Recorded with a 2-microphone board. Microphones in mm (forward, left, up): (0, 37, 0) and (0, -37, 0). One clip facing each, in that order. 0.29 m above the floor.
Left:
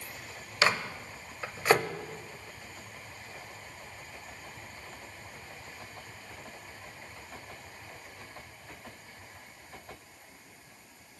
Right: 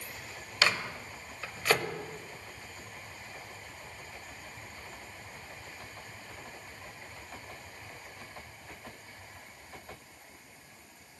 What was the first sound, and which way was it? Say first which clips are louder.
A microwave: left 2 dB; 25° left (ahead or behind).